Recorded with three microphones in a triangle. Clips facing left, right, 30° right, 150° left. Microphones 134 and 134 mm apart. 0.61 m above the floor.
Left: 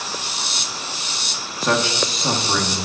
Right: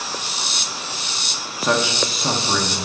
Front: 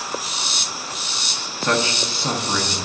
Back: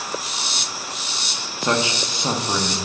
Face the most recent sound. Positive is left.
turn(degrees=-170)